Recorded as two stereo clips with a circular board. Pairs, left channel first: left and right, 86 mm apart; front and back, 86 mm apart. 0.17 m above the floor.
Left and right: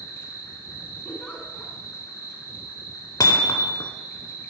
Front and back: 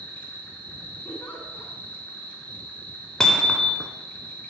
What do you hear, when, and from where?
0.0 s an insect: 65° left, 1.0 m
1.1 s a giggle: 35° left, 1.3 m
3.2 s hammering: 80° left, 0.5 m